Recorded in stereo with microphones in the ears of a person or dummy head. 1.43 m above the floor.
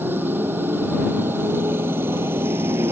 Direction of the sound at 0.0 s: 10° right (ahead or behind).